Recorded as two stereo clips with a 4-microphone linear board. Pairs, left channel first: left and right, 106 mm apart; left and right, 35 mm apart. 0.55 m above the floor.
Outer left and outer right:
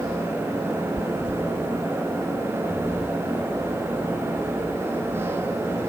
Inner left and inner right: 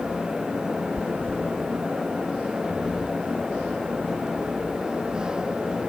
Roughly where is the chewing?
Left.